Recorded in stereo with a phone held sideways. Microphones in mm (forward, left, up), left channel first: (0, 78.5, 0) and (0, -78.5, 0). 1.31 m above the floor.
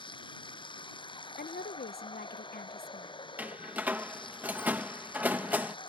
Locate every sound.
0.0 s running water: 30° left (ahead or behind)
1.4 s a woman speaking: 85° left
3.4 s a door slam: 10° right (ahead or behind)